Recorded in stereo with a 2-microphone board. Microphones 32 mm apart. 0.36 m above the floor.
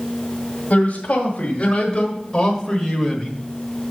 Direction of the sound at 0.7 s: 45° left (ahead or behind).